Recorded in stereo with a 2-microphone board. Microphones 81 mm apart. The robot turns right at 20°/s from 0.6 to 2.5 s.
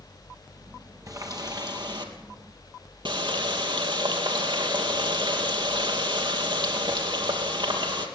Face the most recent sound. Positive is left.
turn(degrees=-65)  # may be behind; listen again after turning